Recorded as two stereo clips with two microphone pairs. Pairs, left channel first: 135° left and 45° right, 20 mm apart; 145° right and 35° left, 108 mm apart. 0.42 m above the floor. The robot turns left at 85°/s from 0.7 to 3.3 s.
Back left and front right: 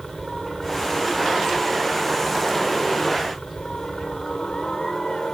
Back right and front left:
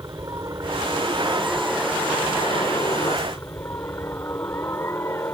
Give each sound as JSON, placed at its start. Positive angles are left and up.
{"t": 0.0, "sound": "a helicopter", "azimuth_deg": 35}